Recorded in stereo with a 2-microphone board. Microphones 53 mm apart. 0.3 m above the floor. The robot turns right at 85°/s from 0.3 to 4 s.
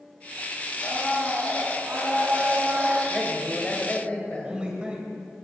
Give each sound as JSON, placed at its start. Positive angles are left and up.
{"t": 0.8, "sound": "a blender", "azimuth_deg": 130, "distance_m": 2.5}
{"t": 3.1, "sound": "a man speaking", "side_deg": -5, "distance_m": 1.6}
{"t": 4.4, "sound": "a man speaking", "side_deg": -20, "distance_m": 1.6}